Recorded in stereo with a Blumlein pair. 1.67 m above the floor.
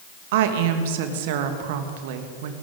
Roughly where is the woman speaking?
Ahead right.